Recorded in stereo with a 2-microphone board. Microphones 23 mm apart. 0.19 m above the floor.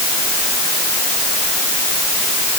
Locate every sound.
Only background noise.